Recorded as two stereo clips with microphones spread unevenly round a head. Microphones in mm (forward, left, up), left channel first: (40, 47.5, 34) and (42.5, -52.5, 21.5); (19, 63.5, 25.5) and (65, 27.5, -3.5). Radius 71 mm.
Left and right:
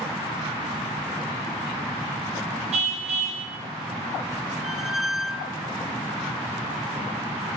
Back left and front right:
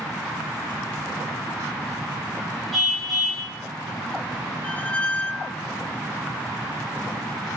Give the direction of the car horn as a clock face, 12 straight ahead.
4 o'clock.